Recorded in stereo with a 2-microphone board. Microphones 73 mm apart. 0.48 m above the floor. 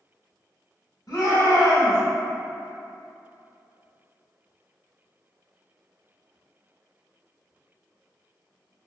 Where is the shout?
60° left (ahead or behind), 1.2 m.